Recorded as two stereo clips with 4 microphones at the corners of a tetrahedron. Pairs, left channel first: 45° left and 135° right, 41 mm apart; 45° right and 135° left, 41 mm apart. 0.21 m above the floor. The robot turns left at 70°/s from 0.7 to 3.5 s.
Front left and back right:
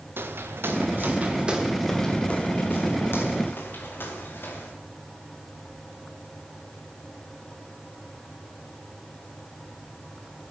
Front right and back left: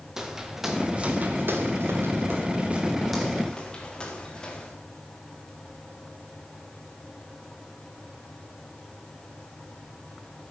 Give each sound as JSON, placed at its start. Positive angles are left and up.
{"t": 0.2, "sound": "footsteps", "azimuth_deg": -150, "distance_m": 1.9}